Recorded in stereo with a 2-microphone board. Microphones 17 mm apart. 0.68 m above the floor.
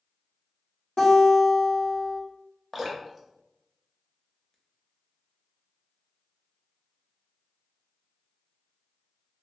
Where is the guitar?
60° left (ahead or behind), 1.6 m.